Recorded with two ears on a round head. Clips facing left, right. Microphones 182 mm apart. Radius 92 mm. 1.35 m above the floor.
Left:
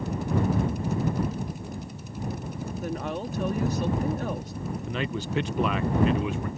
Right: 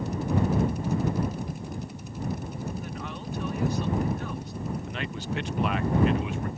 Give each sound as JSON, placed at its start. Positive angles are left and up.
{"t": 2.8, "sound": "a woman speaking", "side_deg": 35}
{"t": 4.9, "sound": "a man speaking", "side_deg": 75}